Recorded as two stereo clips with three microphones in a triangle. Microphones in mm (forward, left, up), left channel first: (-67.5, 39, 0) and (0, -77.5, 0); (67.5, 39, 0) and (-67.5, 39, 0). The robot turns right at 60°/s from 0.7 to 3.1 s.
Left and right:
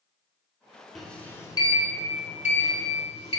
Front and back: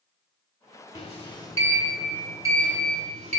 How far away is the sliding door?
About 0.8 m.